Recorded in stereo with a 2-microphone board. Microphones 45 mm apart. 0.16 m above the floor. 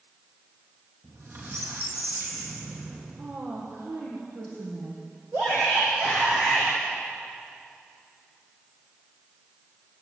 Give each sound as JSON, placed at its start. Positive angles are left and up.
{"t": 1.0, "sound": "a squeak", "side_deg": -60, "distance_m": 4.5}
{"t": 3.2, "sound": "a woman speaking", "side_deg": -75, "distance_m": 6.5}
{"t": 5.3, "sound": "a shout", "side_deg": -50, "distance_m": 7.0}